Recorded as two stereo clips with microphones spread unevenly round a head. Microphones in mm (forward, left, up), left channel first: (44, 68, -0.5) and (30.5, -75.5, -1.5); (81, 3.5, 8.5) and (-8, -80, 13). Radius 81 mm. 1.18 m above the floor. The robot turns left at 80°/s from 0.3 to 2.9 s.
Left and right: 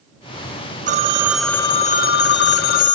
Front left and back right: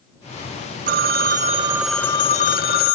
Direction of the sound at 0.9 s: 145° right.